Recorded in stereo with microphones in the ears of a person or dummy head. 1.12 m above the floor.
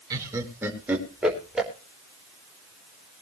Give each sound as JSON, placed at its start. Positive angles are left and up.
{"t": 0.1, "sound": "laughter", "side_deg": -20, "distance_m": 4.5}